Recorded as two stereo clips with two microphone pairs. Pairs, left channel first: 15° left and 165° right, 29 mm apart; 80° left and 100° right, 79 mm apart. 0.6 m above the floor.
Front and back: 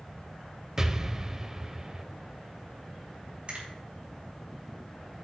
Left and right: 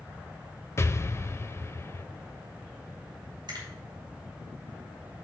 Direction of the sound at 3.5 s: 115° right.